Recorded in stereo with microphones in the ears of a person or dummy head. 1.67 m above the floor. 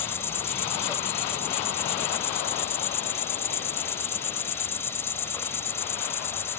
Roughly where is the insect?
Centre.